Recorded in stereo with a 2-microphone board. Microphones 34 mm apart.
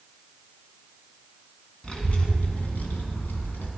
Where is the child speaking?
20° left (ahead or behind), 2.5 m; by 3.7 s 75° left (ahead or behind), 2.5 m.